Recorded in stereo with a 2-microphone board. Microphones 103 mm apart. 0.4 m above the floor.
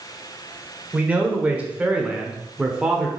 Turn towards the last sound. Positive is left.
turn(degrees=-5)  # may be behind; listen again after turning